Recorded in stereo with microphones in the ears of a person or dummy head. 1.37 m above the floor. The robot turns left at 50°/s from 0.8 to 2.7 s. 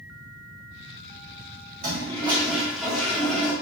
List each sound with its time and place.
1.8 s a toilet flushing: 145° right, 1.2 m; by 3.5 s 175° left, 1.2 m